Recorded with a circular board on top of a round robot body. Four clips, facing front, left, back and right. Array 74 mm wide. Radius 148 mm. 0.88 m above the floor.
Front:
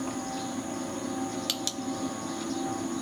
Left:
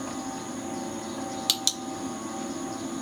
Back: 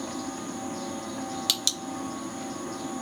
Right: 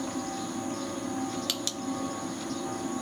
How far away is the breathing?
I don't hear breathing.